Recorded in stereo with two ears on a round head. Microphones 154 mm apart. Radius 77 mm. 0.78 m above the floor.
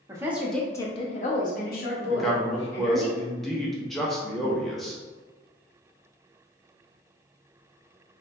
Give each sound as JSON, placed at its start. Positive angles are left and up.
{"t": 0.1, "sound": "a woman speaking", "side_deg": -20, "distance_m": 0.6}
{"t": 2.1, "sound": "a man speaking", "side_deg": 0, "distance_m": 0.5}